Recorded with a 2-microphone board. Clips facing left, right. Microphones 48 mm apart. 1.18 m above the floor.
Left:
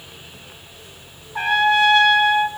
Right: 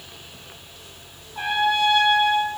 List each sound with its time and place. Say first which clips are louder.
1.4 s a trumpet: left 5 dB; 65° left (ahead or behind), 1.3 m